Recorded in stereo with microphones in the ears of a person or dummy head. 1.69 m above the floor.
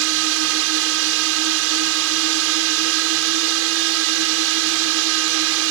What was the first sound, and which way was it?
A drone, 70° right (ahead or behind).